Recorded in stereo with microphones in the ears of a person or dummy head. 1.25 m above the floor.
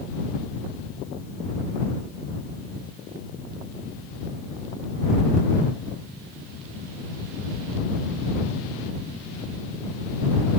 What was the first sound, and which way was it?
Only background noise.